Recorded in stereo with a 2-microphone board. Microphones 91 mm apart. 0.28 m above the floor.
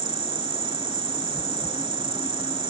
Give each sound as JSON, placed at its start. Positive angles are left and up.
{"t": 0.0, "sound": "an insect", "side_deg": -60}